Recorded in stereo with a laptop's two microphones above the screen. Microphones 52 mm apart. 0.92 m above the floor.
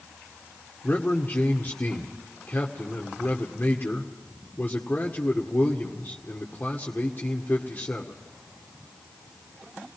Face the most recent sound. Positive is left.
turn(degrees=35)  # may be behind; listen again after turning